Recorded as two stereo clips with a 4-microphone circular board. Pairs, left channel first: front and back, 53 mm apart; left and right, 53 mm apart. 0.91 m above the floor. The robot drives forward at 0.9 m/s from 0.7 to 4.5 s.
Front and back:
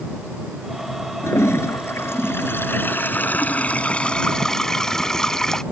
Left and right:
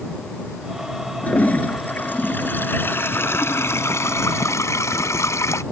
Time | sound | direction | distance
1.2 | a toilet flushing | 30° left | ?